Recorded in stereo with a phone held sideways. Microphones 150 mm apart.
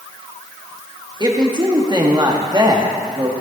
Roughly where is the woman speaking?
Right.